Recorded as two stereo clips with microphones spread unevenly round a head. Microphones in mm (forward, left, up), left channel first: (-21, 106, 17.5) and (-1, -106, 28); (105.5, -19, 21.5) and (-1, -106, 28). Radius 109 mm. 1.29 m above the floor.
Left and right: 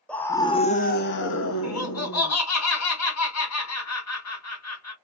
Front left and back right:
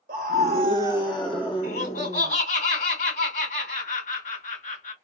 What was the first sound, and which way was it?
A scream, straight behind.